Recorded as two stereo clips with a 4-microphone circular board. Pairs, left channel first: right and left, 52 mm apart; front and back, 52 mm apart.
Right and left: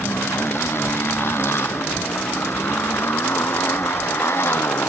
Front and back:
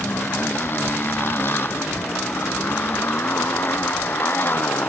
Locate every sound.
0.0 s a motorcycle: 50° right